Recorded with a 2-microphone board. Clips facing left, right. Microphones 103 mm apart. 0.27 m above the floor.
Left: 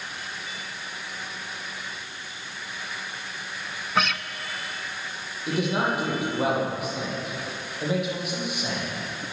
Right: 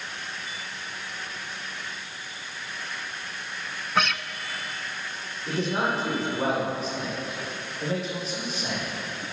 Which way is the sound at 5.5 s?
10° left (ahead or behind).